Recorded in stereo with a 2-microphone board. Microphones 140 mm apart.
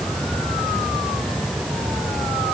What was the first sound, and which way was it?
Only background noise.